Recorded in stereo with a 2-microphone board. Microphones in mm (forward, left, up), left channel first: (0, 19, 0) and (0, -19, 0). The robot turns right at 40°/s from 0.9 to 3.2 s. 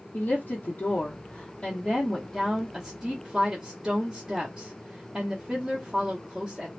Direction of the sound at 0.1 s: 115° left.